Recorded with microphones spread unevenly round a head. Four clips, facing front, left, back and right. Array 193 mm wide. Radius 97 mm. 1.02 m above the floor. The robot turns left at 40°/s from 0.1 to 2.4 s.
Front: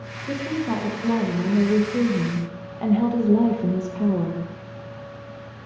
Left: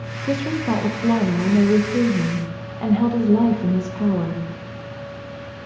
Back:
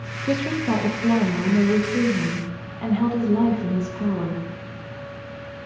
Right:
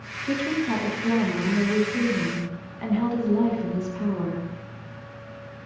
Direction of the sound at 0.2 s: 135° left.